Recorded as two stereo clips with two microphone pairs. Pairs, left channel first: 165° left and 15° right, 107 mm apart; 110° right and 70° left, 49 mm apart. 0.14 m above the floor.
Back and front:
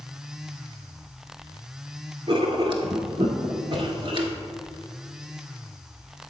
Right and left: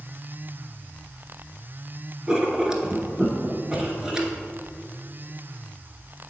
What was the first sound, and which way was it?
Writing, straight ahead.